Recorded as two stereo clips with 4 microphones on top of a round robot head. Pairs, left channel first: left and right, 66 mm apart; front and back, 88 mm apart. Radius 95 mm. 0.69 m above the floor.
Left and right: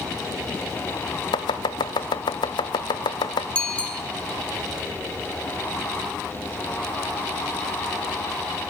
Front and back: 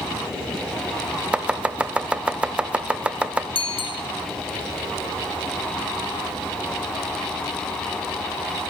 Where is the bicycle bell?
15° left, 3 m.